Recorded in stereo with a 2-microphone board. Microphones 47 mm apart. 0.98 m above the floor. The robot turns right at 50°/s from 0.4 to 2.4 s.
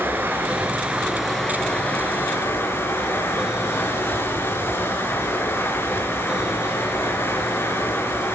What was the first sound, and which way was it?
Running water, 45° right.